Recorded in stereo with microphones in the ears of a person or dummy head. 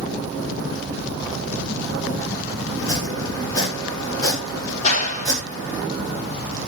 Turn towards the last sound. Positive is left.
turn(degrees=35)  # may be behind; listen again after turning